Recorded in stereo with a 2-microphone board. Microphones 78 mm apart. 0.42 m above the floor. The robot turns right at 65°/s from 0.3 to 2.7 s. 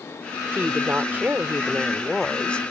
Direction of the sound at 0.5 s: 30° right (ahead or behind).